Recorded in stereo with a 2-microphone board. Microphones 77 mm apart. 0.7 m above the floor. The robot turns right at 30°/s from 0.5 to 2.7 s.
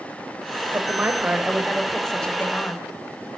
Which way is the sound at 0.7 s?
35° right.